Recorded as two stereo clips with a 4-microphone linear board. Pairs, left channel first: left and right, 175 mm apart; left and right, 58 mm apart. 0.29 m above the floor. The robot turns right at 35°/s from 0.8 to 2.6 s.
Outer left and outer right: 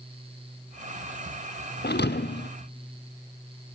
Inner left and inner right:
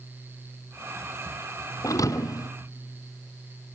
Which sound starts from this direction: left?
A thud, at 1.8 s.